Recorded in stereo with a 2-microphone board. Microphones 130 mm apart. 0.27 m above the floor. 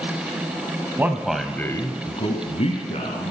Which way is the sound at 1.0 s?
15° right (ahead or behind).